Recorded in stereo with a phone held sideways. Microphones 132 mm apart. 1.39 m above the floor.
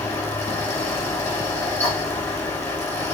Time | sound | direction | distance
0.0 | a fan | 10° left (ahead or behind) | 2.0 m